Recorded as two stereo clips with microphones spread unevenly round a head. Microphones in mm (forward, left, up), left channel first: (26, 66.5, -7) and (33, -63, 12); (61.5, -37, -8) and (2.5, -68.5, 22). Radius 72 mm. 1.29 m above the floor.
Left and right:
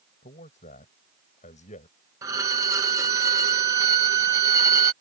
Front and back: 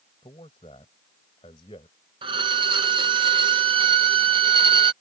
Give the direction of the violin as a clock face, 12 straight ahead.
5 o'clock.